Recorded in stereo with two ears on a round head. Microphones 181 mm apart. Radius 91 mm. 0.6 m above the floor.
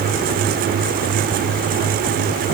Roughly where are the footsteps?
No footsteps in this recording.